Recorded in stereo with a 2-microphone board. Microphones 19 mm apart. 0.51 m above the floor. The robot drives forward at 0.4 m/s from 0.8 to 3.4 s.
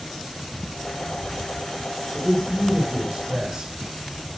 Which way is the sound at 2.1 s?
45° right (ahead or behind).